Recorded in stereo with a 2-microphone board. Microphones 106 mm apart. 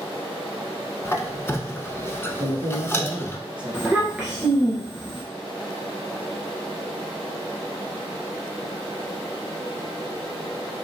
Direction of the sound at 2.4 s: 50° right (ahead or behind).